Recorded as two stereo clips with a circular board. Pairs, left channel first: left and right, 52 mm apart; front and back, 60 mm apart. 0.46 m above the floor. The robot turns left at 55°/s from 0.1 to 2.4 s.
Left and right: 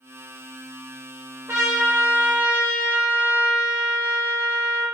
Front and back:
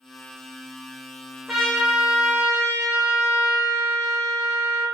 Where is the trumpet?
90° right, 1.1 m; by 4.8 s 140° right, 1.1 m.